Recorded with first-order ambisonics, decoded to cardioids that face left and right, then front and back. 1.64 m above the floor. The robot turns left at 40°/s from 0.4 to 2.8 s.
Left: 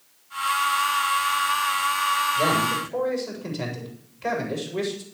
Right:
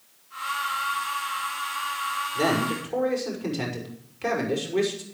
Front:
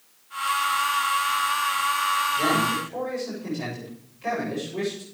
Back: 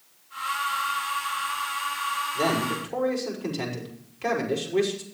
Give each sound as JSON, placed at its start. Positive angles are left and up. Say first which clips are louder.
{"t": 2.4, "sound": "a man speaking", "louder": "left 3 dB, front 3 dB", "azimuth_deg": -115, "distance_m": 6.5}